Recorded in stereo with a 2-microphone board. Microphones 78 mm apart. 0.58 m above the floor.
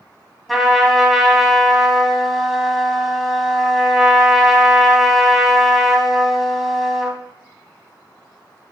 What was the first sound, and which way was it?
A trumpet, 5° right (ahead or behind).